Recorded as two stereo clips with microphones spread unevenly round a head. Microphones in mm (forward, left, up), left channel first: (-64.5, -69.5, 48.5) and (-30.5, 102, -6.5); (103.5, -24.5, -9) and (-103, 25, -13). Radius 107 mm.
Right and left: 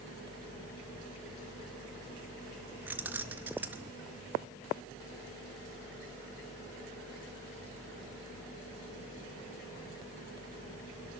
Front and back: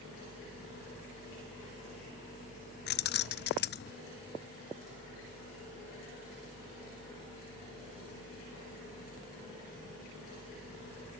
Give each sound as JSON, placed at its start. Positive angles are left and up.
{"t": 2.9, "sound": "keys jangling", "azimuth_deg": -15, "distance_m": 0.6}